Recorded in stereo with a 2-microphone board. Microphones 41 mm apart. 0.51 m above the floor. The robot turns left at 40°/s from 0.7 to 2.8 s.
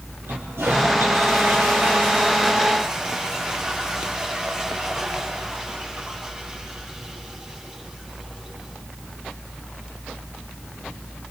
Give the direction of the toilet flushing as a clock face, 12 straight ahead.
3 o'clock.